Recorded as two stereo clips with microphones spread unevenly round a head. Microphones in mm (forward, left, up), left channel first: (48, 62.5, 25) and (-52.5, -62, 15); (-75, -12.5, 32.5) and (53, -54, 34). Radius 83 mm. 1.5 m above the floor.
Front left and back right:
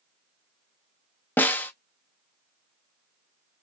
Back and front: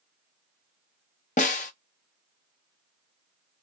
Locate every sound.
1.4 s a snare drum: 125° left, 0.5 m